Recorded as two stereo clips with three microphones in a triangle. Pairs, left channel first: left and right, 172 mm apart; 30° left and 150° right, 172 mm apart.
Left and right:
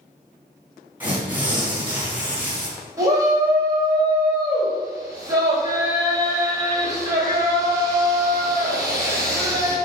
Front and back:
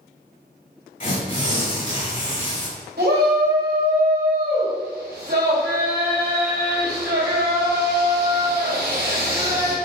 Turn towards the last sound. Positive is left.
turn(degrees=-160)